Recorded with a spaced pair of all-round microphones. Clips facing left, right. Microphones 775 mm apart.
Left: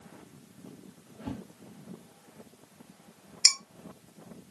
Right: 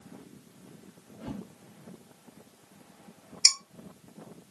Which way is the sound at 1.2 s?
50° left (ahead or behind).